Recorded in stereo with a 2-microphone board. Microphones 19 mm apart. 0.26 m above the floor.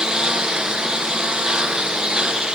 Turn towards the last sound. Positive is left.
turn(degrees=-60)  # may be behind; listen again after turning